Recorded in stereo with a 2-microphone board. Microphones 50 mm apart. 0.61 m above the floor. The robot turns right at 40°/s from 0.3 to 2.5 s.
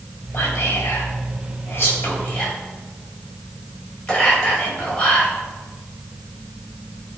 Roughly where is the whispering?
Left.